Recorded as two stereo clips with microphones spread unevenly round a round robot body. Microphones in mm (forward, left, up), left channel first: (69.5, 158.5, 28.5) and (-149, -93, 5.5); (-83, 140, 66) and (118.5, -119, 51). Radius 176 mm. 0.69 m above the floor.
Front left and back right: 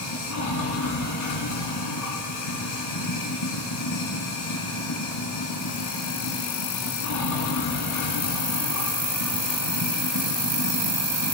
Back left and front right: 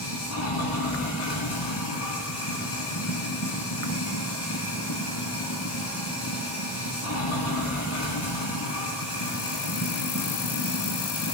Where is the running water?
85° left, 2.5 m.